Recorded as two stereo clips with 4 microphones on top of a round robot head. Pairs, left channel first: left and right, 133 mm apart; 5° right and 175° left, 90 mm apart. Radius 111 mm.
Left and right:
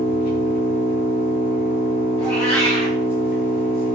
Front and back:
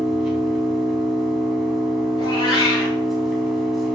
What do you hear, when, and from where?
0.0 s an engine running: 90° left, 3 m
2.2 s a cat meowing: 20° left, 2.0 m